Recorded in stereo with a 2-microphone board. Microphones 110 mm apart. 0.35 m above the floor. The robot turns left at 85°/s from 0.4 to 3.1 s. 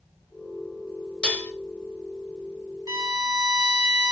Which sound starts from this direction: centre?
Dishes clattering, at 1.2 s.